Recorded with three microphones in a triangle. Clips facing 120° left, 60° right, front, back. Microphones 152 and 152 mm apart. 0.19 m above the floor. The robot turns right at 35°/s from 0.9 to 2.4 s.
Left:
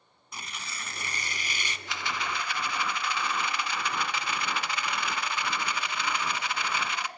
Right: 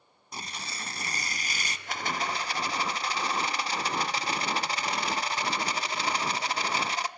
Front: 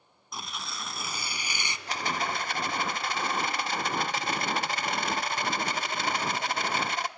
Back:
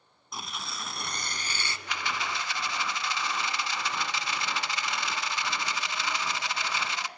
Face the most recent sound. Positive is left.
turn(degrees=-20)